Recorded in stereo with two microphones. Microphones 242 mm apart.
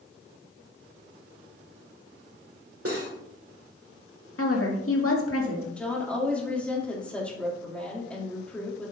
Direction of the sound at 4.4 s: 65° left (ahead or behind).